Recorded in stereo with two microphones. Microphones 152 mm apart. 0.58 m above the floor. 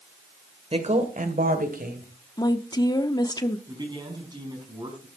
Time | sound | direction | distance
0.7 | a woman speaking | 45° right (ahead or behind) | 2.0 m
2.4 | a woman speaking | 25° left (ahead or behind) | 0.8 m
3.7 | a man speaking | 30° right (ahead or behind) | 4.5 m